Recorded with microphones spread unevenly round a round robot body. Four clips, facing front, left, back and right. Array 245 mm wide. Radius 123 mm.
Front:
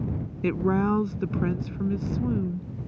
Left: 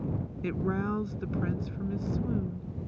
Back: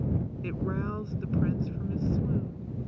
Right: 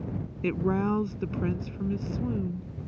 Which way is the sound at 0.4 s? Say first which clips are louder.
Right 5 dB, front 13 dB; 20° right.